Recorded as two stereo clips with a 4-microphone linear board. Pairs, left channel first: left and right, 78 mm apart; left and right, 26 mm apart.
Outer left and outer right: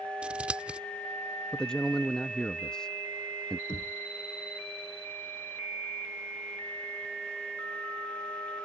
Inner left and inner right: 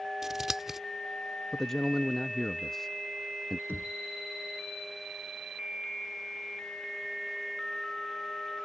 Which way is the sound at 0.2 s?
15° right (ahead or behind).